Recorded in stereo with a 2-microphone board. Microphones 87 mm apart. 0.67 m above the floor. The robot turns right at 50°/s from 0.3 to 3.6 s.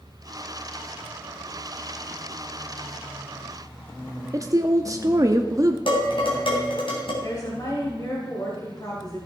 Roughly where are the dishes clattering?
Left.